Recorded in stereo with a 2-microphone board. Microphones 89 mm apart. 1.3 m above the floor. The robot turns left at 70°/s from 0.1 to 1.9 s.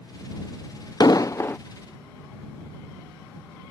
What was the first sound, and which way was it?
An explosion, 65° left.